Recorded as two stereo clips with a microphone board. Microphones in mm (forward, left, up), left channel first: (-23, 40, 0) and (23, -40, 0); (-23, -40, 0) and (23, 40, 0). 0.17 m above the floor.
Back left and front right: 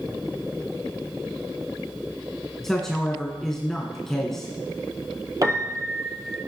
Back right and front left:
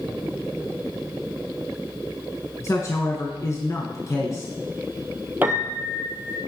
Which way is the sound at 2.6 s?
155° right.